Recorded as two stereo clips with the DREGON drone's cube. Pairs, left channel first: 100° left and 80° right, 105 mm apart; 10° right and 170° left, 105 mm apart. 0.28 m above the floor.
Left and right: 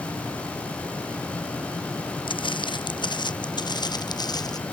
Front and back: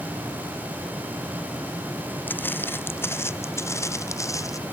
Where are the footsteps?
60° left; by 4.6 s 50° left.